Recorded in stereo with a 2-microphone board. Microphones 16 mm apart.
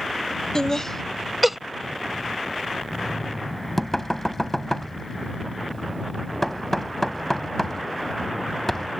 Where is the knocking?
20° left (ahead or behind).